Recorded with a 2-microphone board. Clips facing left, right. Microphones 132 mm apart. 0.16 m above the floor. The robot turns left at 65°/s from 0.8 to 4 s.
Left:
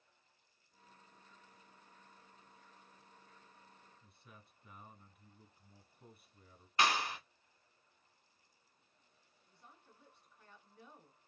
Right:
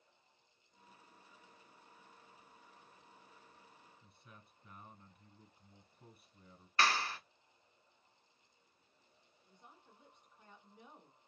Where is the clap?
15° left (ahead or behind), 0.8 m.